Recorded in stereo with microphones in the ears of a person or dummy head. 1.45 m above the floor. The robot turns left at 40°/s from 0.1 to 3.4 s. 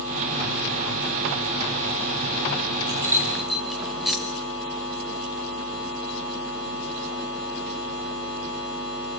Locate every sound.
2.9 s keys jangling: 20° right (ahead or behind), 1.3 m; by 4.2 s centre (ahead or behind), 1.3 m